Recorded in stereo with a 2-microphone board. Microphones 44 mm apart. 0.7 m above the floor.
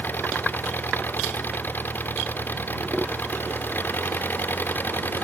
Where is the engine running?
45° left (ahead or behind).